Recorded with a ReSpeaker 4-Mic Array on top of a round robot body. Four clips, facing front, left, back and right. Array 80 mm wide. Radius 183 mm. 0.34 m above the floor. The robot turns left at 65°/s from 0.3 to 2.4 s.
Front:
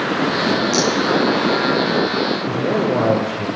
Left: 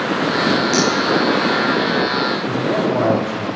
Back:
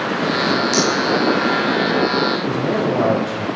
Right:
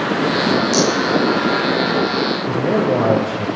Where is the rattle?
105° left, 2.5 m; by 0.9 s 95° left, 2.5 m.